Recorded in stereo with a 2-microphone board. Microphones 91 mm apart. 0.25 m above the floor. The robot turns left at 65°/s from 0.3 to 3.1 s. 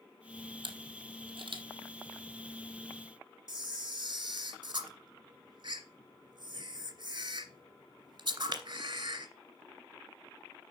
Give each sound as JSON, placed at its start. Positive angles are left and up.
{"t": 0.6, "sound": "a camera shutter", "side_deg": -60, "distance_m": 1.5}
{"t": 3.5, "sound": "a camera shutter", "side_deg": -50, "distance_m": 2.5}